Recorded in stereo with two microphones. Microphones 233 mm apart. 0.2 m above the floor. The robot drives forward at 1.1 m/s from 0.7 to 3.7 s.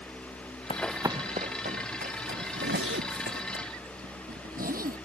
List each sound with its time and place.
0.7 s running footsteps: 25° left (ahead or behind); by 3.4 s 55° right (ahead or behind)
2.4 s a zipper: 70° right (ahead or behind); by 5.0 s 40° right (ahead or behind)